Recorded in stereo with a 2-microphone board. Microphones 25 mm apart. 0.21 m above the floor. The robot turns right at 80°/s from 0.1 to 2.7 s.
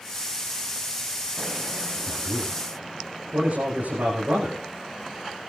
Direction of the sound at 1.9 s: 155° right.